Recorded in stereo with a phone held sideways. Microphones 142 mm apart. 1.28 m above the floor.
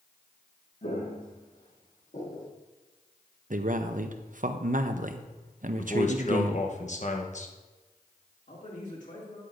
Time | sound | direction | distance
0.8 | footsteps | 65° left (ahead or behind) | 3 m
3.5 | a man speaking | 60° right (ahead or behind) | 0.6 m
5.8 | a man speaking | 50° left (ahead or behind) | 1.0 m
8.5 | a man speaking | 55° left (ahead or behind) | 2.5 m